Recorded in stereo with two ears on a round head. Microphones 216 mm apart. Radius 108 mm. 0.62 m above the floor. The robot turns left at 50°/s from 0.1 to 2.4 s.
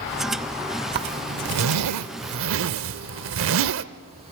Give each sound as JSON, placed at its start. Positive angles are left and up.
{"t": 0.9, "sound": "a zipper", "side_deg": -45, "distance_m": 0.6}